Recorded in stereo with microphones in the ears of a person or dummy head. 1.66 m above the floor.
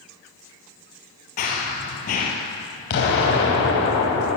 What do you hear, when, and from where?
1.4 s running footsteps: 40° left (ahead or behind), 3 m
2.9 s an explosion: 60° left (ahead or behind), 4 m